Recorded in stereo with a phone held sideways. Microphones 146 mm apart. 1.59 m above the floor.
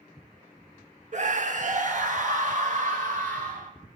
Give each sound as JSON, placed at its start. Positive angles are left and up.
{"t": 1.1, "sound": "a scream", "side_deg": -55, "distance_m": 1.1}